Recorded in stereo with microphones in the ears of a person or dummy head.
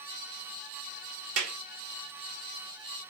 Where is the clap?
75° right (ahead or behind), 1.4 m.